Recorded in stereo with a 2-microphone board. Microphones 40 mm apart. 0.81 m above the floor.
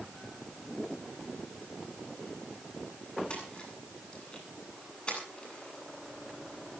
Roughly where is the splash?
Left.